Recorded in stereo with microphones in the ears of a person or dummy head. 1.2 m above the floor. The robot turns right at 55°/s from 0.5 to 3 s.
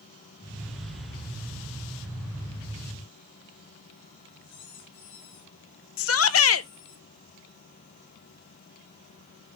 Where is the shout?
70° left (ahead or behind), 0.7 m.